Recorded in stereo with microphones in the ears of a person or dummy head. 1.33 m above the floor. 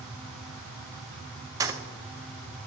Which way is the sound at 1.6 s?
20° right (ahead or behind).